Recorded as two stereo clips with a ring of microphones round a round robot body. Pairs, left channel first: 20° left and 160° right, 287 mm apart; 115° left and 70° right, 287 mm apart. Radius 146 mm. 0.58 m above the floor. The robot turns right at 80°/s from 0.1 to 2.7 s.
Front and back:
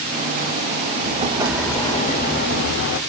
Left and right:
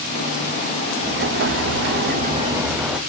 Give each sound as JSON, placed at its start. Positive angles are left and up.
{"t": 1.0, "sound": "an explosion", "azimuth_deg": -115, "distance_m": 0.7}